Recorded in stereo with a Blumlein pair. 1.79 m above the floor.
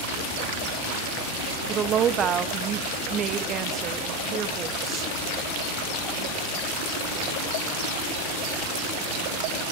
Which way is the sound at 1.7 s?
30° right.